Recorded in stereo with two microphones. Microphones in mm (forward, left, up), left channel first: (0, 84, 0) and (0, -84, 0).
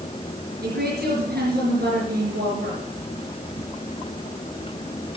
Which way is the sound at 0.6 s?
70° right (ahead or behind).